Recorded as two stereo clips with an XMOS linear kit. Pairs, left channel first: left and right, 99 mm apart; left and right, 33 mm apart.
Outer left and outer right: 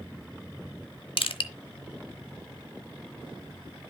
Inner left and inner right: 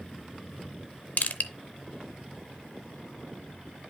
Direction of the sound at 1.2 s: 60° left (ahead or behind).